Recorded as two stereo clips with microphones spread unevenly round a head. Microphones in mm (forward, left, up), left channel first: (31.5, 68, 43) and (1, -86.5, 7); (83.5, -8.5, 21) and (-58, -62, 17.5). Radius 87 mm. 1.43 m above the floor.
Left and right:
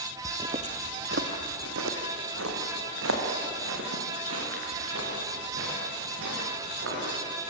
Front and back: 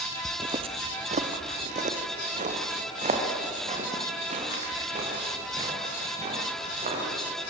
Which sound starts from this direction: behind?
Footsteps, at 0.2 s.